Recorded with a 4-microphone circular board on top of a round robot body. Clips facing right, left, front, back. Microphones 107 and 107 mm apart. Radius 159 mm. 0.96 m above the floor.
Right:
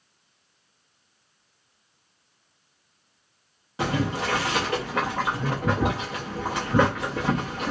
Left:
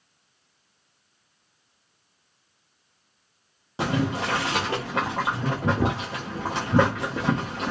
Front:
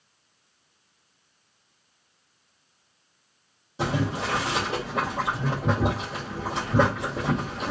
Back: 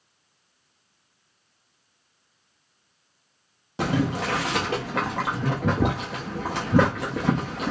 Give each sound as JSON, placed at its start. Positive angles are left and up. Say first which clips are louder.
{"t": 3.8, "sound": "boiling", "louder": "left 1 dB, back 3 dB", "azimuth_deg": 155, "distance_m": 0.5}